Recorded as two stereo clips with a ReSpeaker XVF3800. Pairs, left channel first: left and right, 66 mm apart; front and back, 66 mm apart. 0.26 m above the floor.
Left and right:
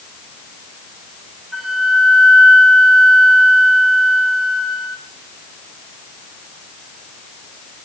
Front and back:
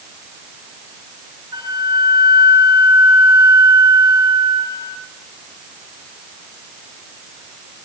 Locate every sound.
1.5 s a flute: 175° right, 6.5 m